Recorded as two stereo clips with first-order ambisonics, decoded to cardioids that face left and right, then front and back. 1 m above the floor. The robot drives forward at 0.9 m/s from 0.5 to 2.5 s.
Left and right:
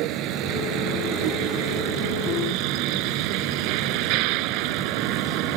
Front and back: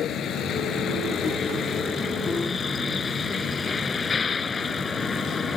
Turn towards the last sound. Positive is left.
turn(degrees=-70)